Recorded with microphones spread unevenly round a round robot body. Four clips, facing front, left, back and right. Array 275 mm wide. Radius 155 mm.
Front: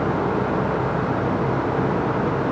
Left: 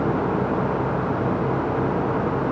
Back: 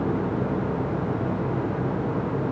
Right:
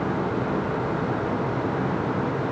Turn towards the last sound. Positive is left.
No sound to turn to.